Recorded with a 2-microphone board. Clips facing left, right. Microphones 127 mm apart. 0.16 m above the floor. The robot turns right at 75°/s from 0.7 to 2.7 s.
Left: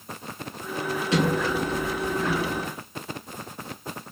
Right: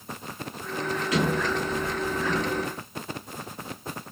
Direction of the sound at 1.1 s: 30° left.